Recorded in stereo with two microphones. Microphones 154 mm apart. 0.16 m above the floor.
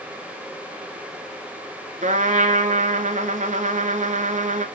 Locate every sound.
2.0 s a trumpet: 55° right (ahead or behind), 0.8 m